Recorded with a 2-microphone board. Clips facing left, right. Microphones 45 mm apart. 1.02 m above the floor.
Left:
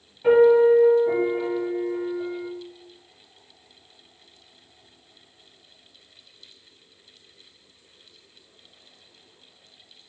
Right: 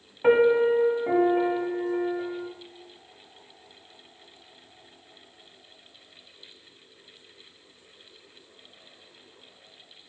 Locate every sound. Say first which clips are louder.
0.2 s a piano: left 4 dB; 45° right (ahead or behind), 1.1 m